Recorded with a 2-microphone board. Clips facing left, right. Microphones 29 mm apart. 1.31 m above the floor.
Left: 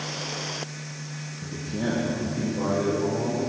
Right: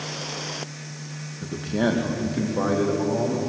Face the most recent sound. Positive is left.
turn(degrees=-75)  # may be behind; listen again after turning